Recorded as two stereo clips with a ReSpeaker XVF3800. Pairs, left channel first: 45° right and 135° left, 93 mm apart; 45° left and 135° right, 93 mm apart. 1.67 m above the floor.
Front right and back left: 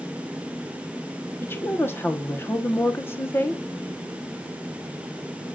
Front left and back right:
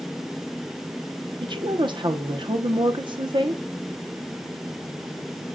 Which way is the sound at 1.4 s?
110° right.